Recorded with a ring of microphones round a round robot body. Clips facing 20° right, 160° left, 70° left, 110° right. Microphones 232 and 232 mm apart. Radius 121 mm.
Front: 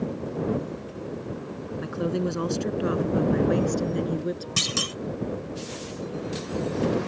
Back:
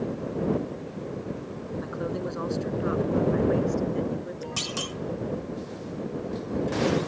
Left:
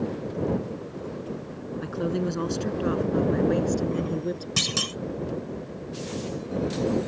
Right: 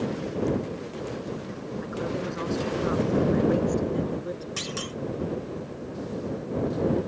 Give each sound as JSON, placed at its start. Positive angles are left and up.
{"t": 1.8, "sound": "a woman speaking", "azimuth_deg": 30}
{"t": 4.6, "sound": "a clunk", "azimuth_deg": 40}